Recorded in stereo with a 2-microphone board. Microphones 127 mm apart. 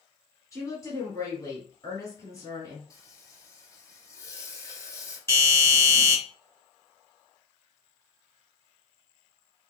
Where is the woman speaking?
25° left (ahead or behind), 1.9 m.